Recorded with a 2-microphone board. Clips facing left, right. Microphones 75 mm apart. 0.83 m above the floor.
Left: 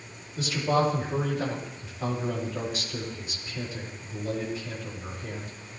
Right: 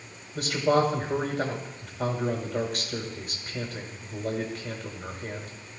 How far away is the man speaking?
About 5 m.